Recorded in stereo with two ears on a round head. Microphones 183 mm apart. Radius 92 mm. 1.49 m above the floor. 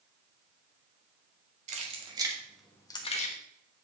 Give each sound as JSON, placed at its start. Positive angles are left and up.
{"t": 1.7, "sound": "keys jangling", "side_deg": -35, "distance_m": 2.0}